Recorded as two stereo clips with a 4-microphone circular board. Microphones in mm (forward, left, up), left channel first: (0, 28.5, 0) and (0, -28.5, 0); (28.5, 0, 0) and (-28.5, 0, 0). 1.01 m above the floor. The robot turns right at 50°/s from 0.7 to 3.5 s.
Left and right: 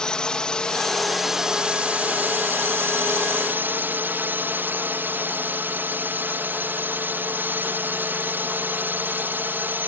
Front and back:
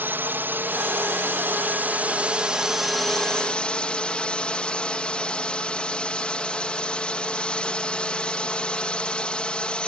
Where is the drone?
160° left; by 9.9 s 60° right.